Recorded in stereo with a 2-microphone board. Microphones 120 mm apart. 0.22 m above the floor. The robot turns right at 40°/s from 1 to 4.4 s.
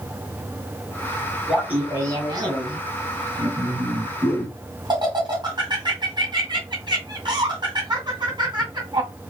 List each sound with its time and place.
1.5 s laughter: 5° right (ahead or behind), 2.5 m; by 9.1 s 40° right (ahead or behind), 2.5 m